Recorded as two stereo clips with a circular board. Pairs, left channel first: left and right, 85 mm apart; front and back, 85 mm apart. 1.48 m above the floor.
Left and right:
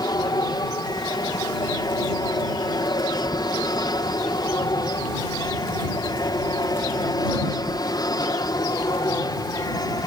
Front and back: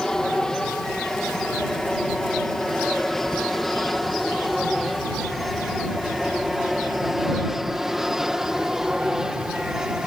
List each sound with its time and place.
0.0 s an aircraft: 80° left; by 10.1 s 100° left